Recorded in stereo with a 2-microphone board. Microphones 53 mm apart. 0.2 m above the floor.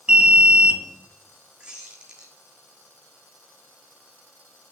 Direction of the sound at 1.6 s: 15° right (ahead or behind).